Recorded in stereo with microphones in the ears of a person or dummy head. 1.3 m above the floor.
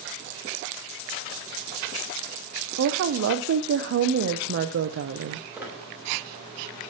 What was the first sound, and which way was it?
A woman speaking, 60° right (ahead or behind).